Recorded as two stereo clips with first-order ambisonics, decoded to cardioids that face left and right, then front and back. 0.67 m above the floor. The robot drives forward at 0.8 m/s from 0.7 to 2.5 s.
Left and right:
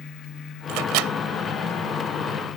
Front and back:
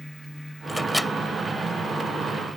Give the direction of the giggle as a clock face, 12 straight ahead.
No giggle in this recording.